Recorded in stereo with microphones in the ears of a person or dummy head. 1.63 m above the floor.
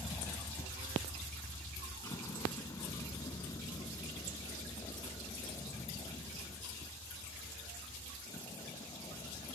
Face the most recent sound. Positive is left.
turn(degrees=20)  # may be behind; listen again after turning